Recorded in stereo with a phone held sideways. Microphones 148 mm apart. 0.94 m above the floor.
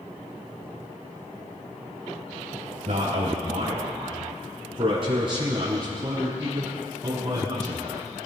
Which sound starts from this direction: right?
A man speaking, at 2.9 s.